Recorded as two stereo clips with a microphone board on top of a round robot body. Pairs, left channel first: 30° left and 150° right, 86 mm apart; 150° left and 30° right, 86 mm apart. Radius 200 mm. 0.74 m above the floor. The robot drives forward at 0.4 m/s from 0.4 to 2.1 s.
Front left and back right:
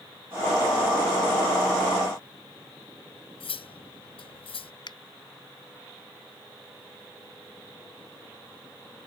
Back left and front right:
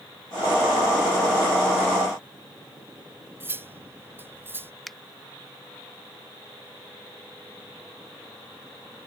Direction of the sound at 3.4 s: 35° left.